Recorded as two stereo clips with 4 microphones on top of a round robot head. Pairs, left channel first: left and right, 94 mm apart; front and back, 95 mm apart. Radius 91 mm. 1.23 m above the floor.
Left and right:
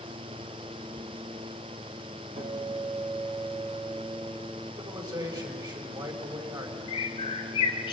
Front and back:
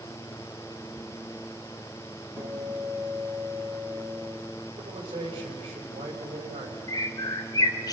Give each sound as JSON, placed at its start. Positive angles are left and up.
{"t": 2.4, "sound": "a guitar", "azimuth_deg": -95, "distance_m": 6.0}
{"t": 4.8, "sound": "a man speaking", "azimuth_deg": -130, "distance_m": 5.0}
{"t": 6.9, "sound": "a bird", "azimuth_deg": 45, "distance_m": 1.1}